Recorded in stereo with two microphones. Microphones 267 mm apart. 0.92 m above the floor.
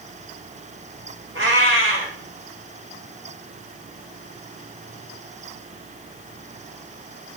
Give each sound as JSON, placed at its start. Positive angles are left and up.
{"t": 1.4, "sound": "a cat meowing", "side_deg": -50, "distance_m": 2.0}